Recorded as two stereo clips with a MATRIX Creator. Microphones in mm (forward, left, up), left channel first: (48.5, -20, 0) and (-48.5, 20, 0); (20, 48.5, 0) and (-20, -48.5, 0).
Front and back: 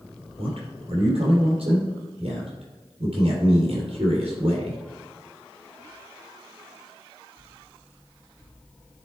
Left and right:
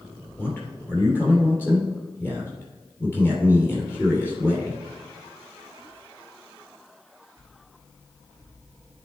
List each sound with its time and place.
0.4 s a man speaking: 140° left, 3.5 m